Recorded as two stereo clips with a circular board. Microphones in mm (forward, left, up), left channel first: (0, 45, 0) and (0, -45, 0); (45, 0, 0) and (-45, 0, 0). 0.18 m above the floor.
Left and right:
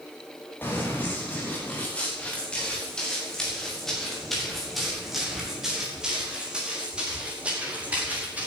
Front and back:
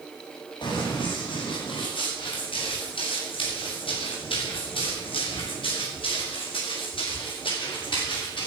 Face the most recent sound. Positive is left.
turn(degrees=-20)